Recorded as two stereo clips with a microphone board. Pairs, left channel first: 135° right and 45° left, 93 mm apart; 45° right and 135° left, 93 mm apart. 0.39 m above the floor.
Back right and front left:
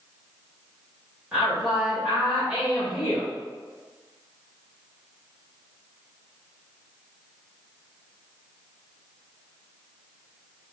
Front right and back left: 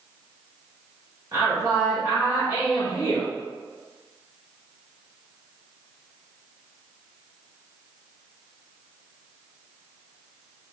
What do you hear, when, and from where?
1.3 s a woman speaking: 125° left, 1.7 m